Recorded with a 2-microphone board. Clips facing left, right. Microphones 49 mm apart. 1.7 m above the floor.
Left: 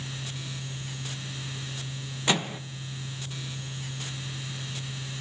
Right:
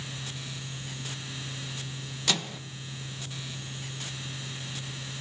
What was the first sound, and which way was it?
A microwave, 25° left (ahead or behind).